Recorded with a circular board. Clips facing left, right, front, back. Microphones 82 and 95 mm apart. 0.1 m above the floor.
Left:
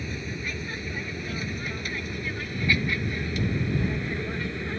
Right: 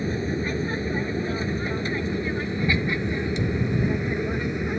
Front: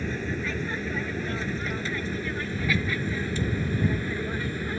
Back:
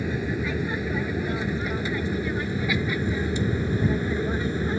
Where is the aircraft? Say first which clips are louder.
Right 8 dB, back 3 dB; 110° right; by 4.8 s 140° right.